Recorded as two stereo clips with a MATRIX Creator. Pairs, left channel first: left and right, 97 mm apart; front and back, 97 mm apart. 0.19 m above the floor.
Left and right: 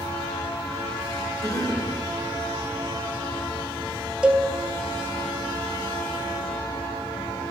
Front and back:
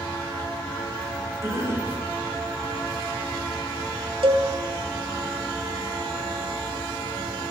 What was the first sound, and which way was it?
A cough, 130° left.